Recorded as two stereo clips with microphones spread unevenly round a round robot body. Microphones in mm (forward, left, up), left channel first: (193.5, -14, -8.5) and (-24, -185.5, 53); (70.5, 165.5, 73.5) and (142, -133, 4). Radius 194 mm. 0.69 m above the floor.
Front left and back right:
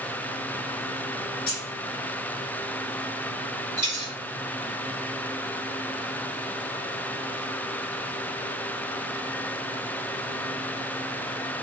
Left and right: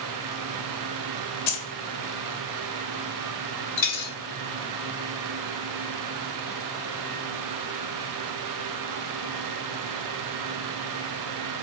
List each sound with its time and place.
1.5 s keys jangling: 100° left, 1.3 m
3.8 s a dropped coin: 140° left, 1.7 m